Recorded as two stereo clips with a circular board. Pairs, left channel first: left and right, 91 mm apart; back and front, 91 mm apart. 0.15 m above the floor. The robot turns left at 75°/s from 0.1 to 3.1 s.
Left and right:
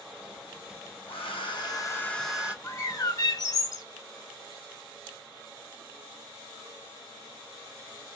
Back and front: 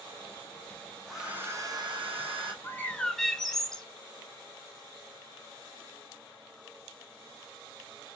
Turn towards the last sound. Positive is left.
turn(degrees=100)